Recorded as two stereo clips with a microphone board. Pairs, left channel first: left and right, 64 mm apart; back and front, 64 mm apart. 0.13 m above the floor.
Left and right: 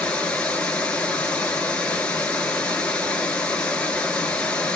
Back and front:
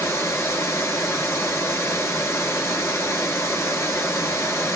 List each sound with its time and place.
0.0 s running water: 155° left, 0.9 m